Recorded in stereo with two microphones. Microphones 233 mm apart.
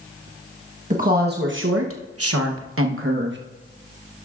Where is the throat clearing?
I don't hear throat clearing.